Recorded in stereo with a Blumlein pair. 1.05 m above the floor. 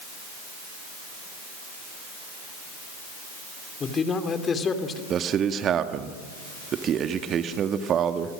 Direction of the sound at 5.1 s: 25° right.